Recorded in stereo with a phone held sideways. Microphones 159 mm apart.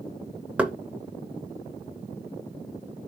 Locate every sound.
0.6 s knocking: 10° right (ahead or behind), 0.5 m